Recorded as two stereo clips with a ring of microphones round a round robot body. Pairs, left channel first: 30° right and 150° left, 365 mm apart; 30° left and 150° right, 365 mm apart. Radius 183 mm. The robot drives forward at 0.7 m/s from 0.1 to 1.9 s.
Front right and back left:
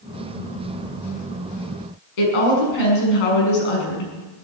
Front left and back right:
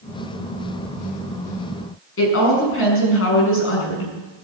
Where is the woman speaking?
25° right, 6.5 m.